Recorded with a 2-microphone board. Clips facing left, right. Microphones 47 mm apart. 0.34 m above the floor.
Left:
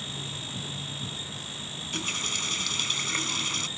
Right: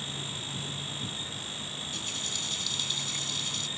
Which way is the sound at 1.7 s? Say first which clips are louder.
Left 9 dB; 65° left (ahead or behind).